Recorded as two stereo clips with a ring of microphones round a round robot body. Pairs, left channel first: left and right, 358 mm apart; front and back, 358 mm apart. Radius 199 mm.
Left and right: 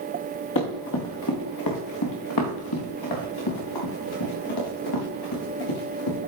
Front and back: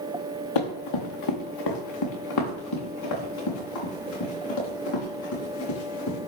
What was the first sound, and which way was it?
Running footsteps, 30° left.